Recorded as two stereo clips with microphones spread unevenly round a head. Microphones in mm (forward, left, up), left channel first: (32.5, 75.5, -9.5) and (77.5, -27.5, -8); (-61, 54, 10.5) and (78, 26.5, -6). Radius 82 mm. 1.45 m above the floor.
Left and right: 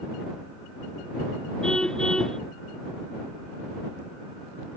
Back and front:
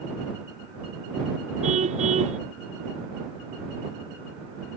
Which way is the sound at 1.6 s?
30° left.